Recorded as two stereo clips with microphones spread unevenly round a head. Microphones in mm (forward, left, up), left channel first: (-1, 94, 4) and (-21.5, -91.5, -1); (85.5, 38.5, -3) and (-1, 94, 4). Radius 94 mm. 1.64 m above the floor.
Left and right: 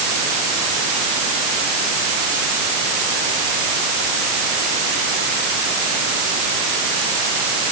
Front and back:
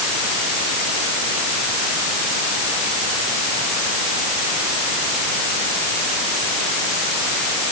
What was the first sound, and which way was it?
Only background noise.